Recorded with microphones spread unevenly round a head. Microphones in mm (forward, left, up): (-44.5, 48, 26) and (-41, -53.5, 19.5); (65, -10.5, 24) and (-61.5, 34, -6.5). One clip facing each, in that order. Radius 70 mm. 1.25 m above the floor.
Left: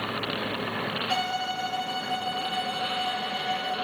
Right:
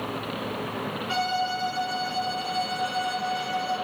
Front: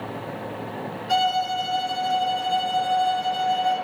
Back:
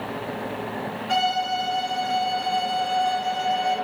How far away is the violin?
About 1.6 m.